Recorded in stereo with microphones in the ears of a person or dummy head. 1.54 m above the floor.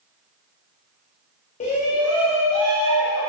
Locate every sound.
1.6 s a shout: 35° left (ahead or behind), 0.6 m; by 3.3 s 75° left (ahead or behind), 1.8 m